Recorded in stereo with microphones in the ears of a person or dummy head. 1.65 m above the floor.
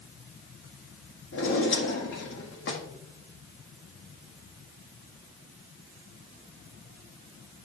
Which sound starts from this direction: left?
A drawer, at 1.3 s.